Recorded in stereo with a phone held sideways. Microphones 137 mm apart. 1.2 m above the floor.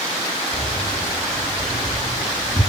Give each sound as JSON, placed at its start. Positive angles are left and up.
{"t": 0.5, "sound": "keys jangling", "side_deg": 5, "distance_m": 5.5}